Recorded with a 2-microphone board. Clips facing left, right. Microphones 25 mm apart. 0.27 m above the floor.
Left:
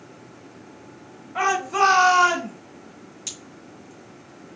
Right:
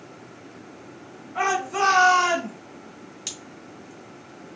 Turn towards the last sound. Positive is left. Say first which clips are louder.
# right 1 dB
turn(degrees=-25)  # may be behind; listen again after turning